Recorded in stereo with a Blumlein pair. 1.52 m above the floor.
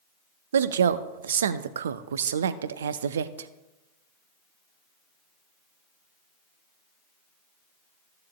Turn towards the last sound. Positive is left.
turn(degrees=-65)